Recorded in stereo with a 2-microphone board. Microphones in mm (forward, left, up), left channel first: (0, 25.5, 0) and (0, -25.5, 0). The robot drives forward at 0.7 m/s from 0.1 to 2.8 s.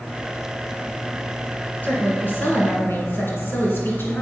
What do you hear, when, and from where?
1.8 s a woman speaking: 40° left (ahead or behind), 3.5 m; by 4.2 s 50° left (ahead or behind), 3 m